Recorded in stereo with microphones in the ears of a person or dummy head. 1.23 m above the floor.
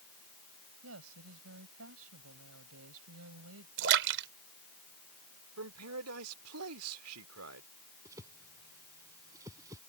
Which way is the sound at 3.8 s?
65° right (ahead or behind).